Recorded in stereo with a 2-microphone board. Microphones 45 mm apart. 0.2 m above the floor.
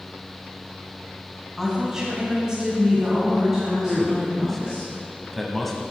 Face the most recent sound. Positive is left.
turn(degrees=5)  # may be behind; listen again after turning